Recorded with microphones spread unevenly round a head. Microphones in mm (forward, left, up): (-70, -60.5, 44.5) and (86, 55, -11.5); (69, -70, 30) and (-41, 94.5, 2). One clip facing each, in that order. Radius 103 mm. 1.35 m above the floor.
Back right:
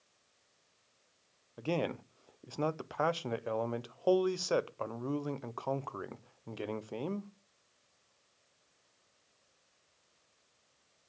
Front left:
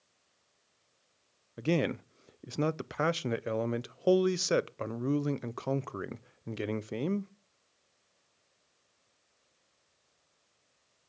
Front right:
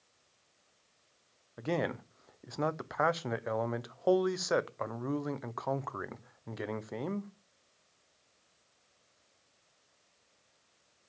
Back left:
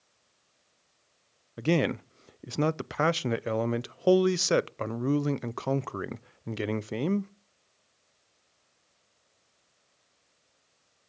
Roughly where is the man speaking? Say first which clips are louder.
Front left 4 dB, back left 7 dB; left.